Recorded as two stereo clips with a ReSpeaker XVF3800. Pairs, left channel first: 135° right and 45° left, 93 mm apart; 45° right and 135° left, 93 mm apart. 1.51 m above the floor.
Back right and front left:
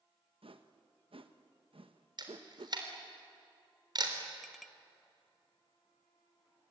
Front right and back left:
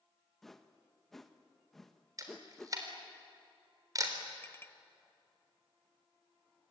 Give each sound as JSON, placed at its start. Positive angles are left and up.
{"t": 0.4, "sound": "a whoosh", "azimuth_deg": 45, "distance_m": 1.2}
{"t": 2.2, "sound": "a camera shutter", "azimuth_deg": 85, "distance_m": 3.5}
{"t": 4.4, "sound": "a clink", "azimuth_deg": -45, "distance_m": 0.7}